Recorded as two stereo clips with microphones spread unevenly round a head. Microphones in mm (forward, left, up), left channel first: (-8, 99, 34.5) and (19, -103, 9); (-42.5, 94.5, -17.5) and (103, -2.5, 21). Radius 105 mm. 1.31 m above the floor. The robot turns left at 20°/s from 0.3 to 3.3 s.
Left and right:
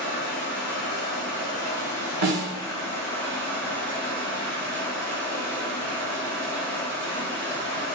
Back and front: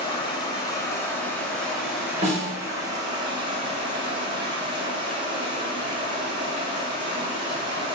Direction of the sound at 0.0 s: 80° left.